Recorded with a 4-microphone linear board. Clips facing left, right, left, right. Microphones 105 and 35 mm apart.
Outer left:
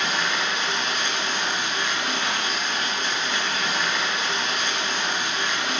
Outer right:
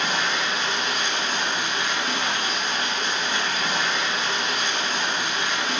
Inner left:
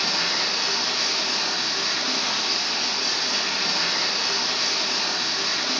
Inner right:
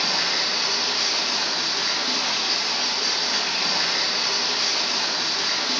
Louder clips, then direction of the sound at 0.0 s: Even, inner right 1 dB; 35° right (ahead or behind).